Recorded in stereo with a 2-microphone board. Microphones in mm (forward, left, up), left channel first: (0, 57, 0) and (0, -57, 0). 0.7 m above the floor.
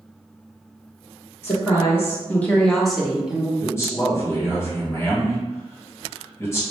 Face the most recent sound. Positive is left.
turn(degrees=25)  # may be behind; listen again after turning